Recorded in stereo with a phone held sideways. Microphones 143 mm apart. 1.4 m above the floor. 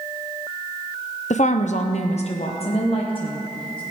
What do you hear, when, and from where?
1.3 s a woman speaking: 60° left (ahead or behind), 0.6 m; by 3.8 s 35° left (ahead or behind), 1.5 m